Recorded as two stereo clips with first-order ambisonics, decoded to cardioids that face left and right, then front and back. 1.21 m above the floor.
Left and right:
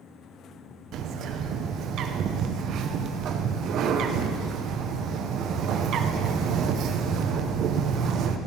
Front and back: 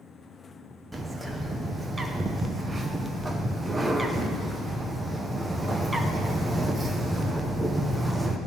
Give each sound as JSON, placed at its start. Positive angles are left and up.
{"t": 0.9, "sound": "a bird", "azimuth_deg": -105, "distance_m": 0.8}